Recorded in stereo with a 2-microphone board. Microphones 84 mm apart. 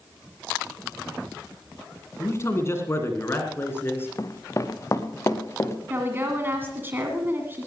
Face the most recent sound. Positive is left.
turn(degrees=-25)  # may be behind; listen again after turning